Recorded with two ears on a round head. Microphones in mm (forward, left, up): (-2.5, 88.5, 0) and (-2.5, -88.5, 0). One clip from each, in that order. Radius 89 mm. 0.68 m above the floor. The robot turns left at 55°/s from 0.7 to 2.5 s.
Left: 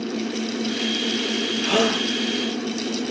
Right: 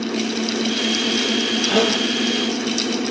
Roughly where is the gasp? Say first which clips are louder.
Right 1 dB; left.